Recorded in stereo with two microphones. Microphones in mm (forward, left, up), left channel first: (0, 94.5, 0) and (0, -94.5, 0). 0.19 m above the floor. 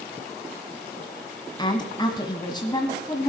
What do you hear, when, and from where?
1.6 s a woman speaking: 25° left (ahead or behind), 1.3 m